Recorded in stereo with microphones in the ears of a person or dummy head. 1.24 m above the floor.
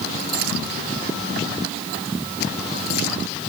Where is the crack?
I don't hear a crack.